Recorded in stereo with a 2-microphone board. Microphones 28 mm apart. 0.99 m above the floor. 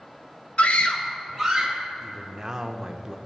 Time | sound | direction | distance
0.6 | a scream | 55° left (ahead or behind) | 0.9 m
2.0 | a man speaking | 25° right (ahead or behind) | 0.6 m